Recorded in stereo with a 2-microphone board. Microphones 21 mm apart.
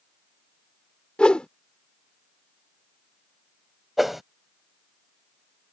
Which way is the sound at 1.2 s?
60° left (ahead or behind).